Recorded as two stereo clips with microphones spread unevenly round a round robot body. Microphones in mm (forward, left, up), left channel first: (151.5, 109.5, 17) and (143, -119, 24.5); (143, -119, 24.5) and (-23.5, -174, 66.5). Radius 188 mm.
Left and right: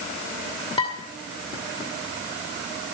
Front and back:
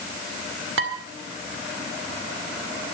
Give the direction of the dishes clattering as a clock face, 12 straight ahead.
7 o'clock.